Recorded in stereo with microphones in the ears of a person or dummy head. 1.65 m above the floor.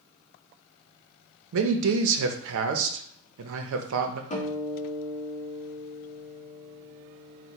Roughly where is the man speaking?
Right.